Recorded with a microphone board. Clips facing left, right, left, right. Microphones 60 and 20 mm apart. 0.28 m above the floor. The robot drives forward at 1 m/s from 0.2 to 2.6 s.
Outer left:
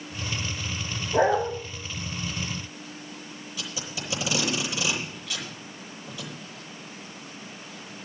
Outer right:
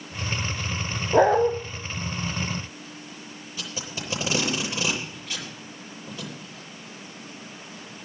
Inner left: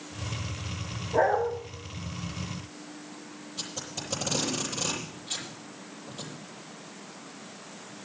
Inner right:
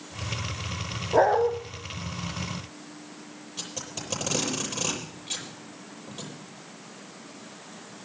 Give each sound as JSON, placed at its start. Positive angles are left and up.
{"t": 1.1, "sound": "a dog barking", "side_deg": -80, "distance_m": 2.5}
{"t": 3.6, "sound": "tape being pulled", "side_deg": -35, "distance_m": 9.0}